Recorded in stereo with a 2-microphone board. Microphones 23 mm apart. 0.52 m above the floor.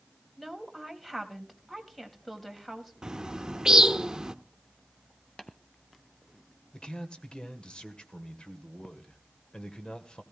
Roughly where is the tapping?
Left.